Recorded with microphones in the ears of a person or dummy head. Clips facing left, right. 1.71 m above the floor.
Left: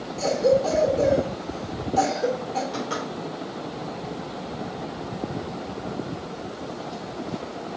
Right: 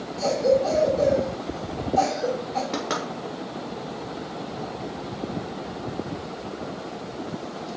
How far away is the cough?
About 1.8 m.